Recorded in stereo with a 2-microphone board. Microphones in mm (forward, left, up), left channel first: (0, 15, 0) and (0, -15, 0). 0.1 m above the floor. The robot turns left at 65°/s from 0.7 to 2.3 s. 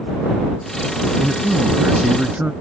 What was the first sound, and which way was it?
A man speaking, 55° right.